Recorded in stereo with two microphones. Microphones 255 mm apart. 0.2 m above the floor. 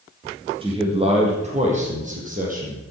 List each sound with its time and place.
0.6 s a man speaking: 20° right (ahead or behind), 5.5 m; by 2.9 s 30° right (ahead or behind), 6.5 m